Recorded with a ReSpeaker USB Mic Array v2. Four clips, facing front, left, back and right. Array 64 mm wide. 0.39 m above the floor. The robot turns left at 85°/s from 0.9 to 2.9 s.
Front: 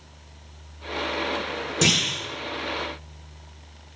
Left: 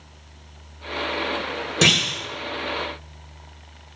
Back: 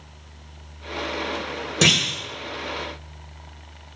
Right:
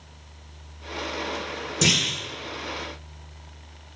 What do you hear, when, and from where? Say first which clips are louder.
1.8 s a clunk: left 4 dB, back 3 dB; 125° left, 1.7 m; by 2.2 s 90° left, 1.7 m